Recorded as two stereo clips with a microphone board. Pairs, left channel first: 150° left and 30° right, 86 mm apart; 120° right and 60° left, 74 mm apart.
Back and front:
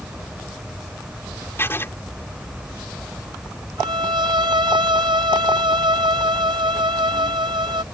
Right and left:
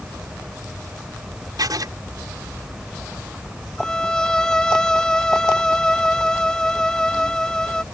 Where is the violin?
40° right.